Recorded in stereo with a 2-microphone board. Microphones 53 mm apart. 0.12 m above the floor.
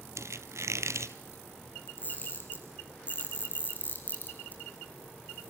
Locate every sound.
0.2 s a squeak: 70° right (ahead or behind), 1.1 m
1.9 s a camera shutter: 35° left (ahead or behind), 5.5 m